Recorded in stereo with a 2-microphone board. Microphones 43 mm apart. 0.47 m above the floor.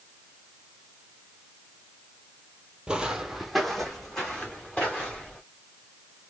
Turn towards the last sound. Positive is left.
turn(degrees=15)  # may be behind; listen again after turning